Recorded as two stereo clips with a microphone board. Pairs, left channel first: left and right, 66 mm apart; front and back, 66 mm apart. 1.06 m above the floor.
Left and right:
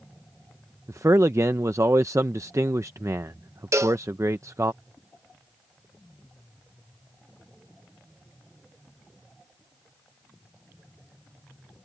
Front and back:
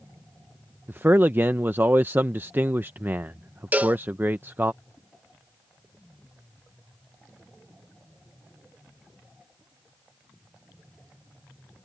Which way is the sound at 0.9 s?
120° right.